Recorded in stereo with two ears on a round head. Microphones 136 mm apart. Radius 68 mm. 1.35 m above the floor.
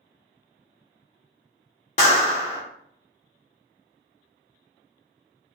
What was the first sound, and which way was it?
A clap, 45° left (ahead or behind).